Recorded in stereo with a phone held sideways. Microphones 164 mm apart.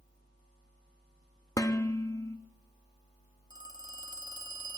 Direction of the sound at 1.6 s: 20° left (ahead or behind).